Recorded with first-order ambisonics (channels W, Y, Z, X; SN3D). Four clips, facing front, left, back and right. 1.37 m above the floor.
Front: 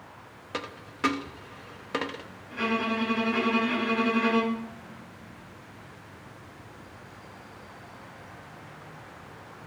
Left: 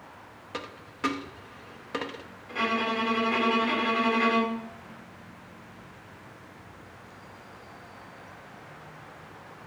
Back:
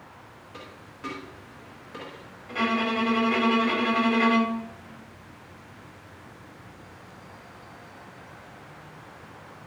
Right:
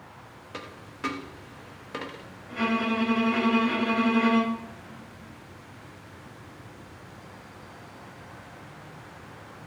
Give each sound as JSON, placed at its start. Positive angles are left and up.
{"t": 0.5, "sound": "a dropped coin", "azimuth_deg": 10, "distance_m": 0.9}
{"t": 2.5, "sound": "a violin", "azimuth_deg": 160, "distance_m": 5.0}